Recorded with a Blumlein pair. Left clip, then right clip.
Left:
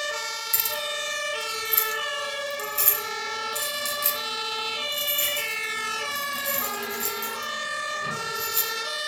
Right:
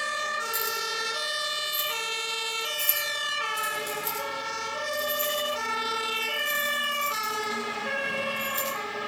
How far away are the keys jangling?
About 3.5 m.